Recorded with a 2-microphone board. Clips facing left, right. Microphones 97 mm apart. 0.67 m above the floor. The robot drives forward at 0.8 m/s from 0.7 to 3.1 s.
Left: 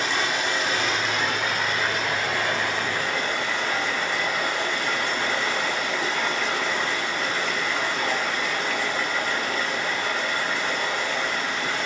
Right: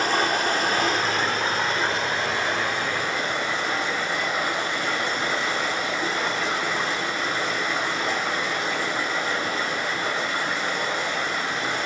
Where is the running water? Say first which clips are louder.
Right 3 dB; 45° right (ahead or behind), 1.4 m; by 11.9 s 20° right (ahead or behind), 3 m.